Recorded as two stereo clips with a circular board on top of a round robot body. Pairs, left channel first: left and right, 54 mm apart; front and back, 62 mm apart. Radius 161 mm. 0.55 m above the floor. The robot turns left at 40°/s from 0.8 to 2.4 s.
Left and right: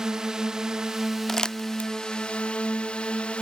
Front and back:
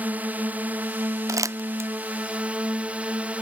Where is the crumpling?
170° left; by 1.9 s 145° left.